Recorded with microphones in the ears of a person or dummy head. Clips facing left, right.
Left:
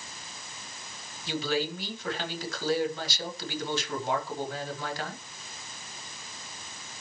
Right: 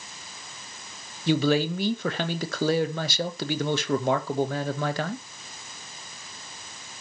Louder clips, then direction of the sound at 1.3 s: Right 8 dB; 55° right (ahead or behind).